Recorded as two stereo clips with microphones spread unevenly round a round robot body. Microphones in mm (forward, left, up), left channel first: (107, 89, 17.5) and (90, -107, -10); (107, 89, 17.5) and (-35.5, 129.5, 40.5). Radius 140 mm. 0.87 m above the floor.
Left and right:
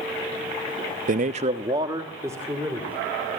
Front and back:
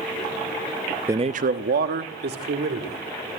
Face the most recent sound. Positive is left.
turn(degrees=180)